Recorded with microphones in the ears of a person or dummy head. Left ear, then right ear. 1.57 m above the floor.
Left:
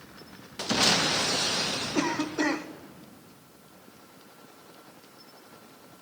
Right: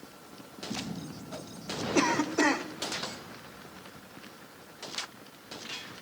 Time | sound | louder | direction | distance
1.9 | a cough | right 5 dB | 15° right (ahead or behind) | 0.8 m